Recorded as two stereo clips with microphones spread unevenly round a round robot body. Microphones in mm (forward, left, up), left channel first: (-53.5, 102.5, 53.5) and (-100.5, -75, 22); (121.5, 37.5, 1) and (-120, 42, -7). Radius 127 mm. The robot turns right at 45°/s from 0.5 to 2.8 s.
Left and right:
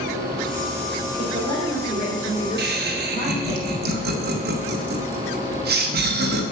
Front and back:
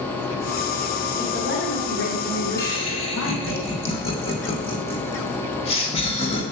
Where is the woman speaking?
55° right, 3 m; by 3.6 s 15° left, 3 m.